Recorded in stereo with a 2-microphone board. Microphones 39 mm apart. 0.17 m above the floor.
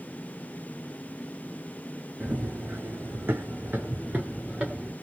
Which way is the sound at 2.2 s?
60° right (ahead or behind).